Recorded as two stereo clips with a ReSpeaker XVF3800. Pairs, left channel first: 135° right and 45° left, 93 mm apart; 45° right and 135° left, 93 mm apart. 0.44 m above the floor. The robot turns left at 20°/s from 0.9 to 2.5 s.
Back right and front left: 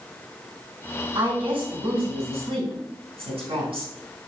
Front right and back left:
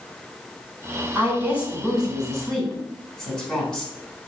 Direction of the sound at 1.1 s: 65° left.